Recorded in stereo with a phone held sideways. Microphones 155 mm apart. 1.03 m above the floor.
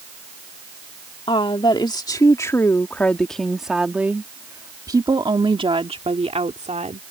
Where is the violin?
I don't hear a violin.